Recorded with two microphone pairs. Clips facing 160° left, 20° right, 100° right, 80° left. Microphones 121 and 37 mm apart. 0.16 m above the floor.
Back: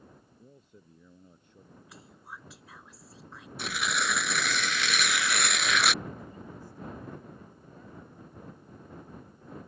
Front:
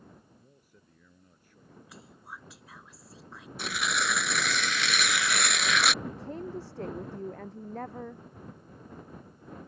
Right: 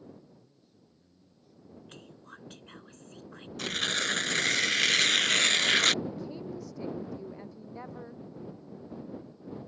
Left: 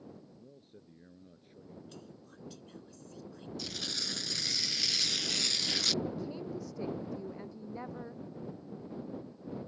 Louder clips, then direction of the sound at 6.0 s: Front 6 dB, right 1 dB; 10° right.